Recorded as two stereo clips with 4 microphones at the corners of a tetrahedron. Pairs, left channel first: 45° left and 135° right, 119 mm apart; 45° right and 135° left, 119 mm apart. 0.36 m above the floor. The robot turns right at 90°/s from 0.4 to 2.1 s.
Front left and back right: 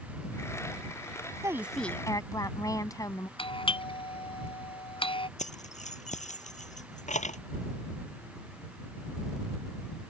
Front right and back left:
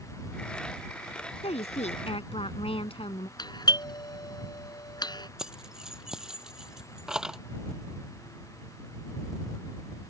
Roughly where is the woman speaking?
Right.